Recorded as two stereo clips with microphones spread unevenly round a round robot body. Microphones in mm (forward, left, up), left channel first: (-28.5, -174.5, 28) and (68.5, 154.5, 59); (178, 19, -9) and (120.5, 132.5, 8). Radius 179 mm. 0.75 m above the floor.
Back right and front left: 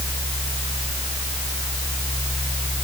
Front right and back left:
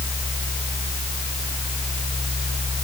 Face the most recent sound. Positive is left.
No sound to turn to.